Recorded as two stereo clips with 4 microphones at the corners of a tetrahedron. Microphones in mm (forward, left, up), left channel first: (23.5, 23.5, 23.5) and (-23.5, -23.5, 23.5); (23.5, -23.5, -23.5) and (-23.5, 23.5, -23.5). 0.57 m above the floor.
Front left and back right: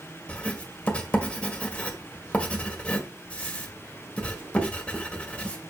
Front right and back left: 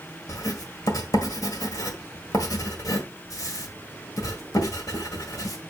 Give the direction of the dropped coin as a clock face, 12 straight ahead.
No dropped coin in this recording.